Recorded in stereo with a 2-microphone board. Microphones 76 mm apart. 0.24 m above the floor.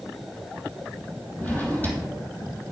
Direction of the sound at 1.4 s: 25° left (ahead or behind).